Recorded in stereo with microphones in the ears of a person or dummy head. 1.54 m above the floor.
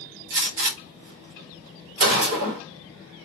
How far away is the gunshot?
About 1.1 m.